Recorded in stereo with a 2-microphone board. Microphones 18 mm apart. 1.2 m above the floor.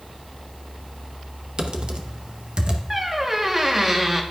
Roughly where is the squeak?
Centre.